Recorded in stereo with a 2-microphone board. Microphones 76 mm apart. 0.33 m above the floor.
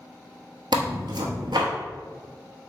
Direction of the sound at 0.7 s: 80° right.